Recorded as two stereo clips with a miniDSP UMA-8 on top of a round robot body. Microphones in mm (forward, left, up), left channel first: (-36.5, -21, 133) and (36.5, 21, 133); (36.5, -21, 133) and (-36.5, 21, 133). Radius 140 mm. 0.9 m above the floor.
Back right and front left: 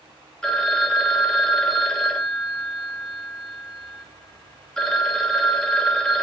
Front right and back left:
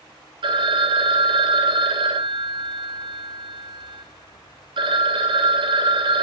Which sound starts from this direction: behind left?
A phone ringing, at 0.4 s.